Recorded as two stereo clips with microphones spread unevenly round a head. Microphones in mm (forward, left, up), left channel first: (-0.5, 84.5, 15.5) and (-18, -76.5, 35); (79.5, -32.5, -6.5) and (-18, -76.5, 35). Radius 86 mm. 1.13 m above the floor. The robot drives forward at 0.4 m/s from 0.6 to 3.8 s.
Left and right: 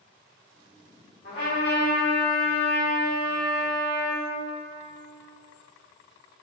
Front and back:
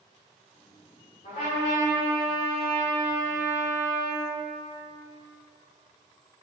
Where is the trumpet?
60° left, 0.9 m; by 4.2 s 140° left, 1.1 m.